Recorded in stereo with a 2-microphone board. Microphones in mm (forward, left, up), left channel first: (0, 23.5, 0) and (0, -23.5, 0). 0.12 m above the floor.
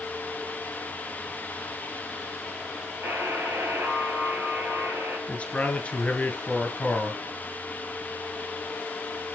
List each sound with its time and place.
3.0 s a buzzer: 65° right (ahead or behind), 3.5 m
5.3 s a man speaking: 25° left (ahead or behind), 1.7 m